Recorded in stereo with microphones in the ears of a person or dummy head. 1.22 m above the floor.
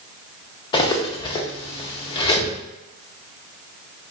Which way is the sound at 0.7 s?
25° left (ahead or behind).